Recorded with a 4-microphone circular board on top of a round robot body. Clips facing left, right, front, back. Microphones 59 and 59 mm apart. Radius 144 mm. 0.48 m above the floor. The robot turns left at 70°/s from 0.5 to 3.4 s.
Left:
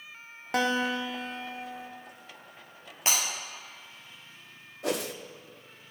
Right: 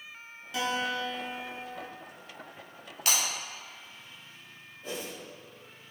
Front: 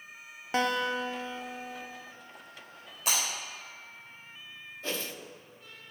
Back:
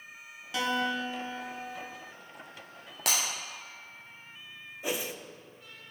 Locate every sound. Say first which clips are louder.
0.5 s a guitar: left 4 dB, front 1 dB; 50° left, 0.8 m; by 1.9 s 45° right, 0.8 m
3.1 s breaking glass: left 1 dB, even; 155° left, 1.6 m; by 3.2 s 145° left, 1.6 m
4.8 s a whoosh: left 8 dB, back 2 dB; 100° left, 0.6 m